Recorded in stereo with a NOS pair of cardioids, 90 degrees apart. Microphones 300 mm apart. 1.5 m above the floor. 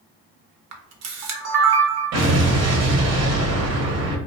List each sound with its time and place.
0.7 s a camera shutter: 60° right, 0.7 m
2.1 s an explosion: 60° right, 0.9 m